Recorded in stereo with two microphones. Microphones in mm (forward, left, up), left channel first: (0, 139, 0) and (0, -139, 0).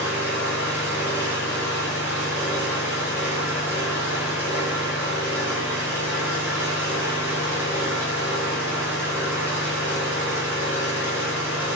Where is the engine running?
10° right (ahead or behind), 2 m.